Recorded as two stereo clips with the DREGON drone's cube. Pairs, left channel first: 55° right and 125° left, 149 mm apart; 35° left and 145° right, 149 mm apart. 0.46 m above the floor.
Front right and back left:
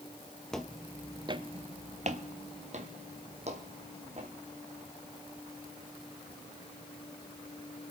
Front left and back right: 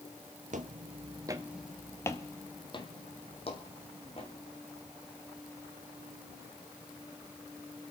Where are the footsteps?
140° right, 0.8 m; by 4.3 s 80° left, 2 m.